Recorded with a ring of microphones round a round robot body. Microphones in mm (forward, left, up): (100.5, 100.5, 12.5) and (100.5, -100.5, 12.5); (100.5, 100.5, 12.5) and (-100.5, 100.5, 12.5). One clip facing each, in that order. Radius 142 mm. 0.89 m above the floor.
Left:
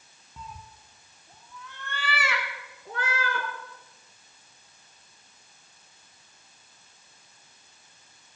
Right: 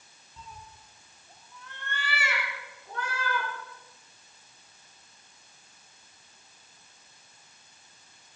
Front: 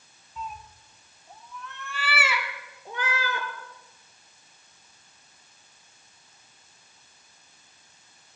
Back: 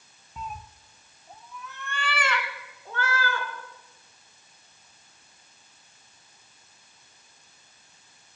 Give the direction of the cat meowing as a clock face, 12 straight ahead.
7 o'clock.